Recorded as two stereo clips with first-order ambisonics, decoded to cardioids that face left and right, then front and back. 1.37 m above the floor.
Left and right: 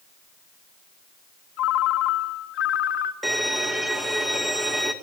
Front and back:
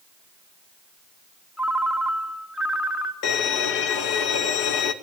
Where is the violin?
5° left, 1.8 m.